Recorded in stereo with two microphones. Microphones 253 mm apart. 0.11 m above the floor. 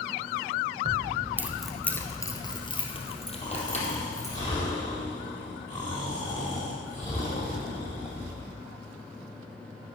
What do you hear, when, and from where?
0.8 s keys jangling: 25° right (ahead or behind), 1.0 m; by 4.4 s 30° left (ahead or behind), 3 m
3.4 s snoring: 25° left (ahead or behind), 4 m